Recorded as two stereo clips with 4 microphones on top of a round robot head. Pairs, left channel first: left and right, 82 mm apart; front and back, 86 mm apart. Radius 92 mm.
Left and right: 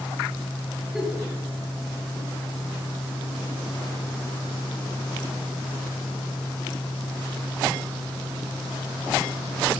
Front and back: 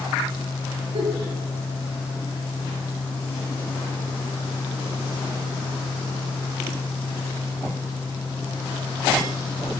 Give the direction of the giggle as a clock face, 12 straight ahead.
6 o'clock.